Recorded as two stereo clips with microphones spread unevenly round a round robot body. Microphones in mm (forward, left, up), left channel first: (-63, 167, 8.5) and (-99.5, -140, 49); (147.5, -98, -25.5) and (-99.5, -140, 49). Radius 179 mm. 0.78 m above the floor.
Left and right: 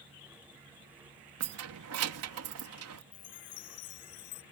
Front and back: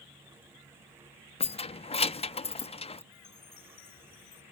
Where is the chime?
85° left.